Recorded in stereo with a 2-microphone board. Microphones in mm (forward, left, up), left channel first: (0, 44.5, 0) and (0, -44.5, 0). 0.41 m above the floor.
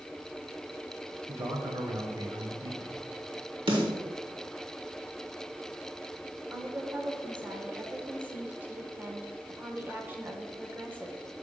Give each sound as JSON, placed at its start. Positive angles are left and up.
{"t": 1.3, "sound": "a man speaking", "side_deg": -40, "distance_m": 1.6}
{"t": 3.7, "sound": "a snare drum", "side_deg": -75, "distance_m": 2.0}
{"t": 6.5, "sound": "a woman speaking", "side_deg": -20, "distance_m": 0.9}